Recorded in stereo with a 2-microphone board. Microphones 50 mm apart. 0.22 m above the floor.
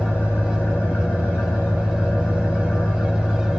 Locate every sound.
0.0 s an engine running: 35° left (ahead or behind), 7.5 m